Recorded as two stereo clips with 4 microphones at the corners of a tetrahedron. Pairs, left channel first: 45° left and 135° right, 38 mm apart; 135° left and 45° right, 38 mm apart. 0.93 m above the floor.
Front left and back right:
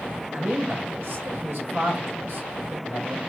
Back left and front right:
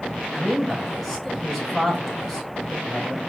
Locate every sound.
0.3 s a man speaking: 135° right, 3 m